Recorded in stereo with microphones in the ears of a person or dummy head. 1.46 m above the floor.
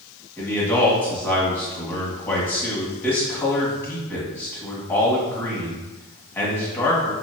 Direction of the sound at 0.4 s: 10° left (ahead or behind).